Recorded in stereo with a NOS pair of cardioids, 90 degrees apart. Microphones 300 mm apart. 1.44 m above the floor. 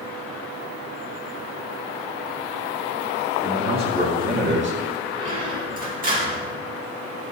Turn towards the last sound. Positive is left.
turn(degrees=-30)